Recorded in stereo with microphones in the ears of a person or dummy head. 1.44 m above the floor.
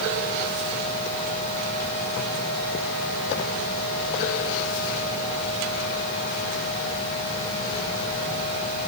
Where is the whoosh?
No whoosh in this recording.